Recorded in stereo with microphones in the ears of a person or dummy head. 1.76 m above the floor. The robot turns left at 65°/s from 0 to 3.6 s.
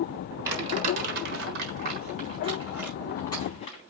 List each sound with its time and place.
0.5 s crumpling: 10° right (ahead or behind), 4 m; by 3.8 s 35° left (ahead or behind), 4 m